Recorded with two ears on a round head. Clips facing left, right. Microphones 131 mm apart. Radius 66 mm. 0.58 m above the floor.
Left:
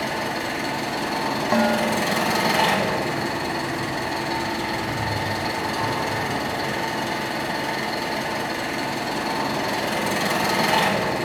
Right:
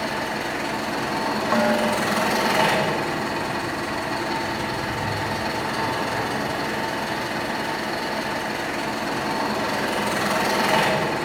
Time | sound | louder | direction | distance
0.0 | an engine running | even | 30° left (ahead or behind) | 2.5 m
1.5 | dishes clattering | even | 20° left (ahead or behind) | 0.8 m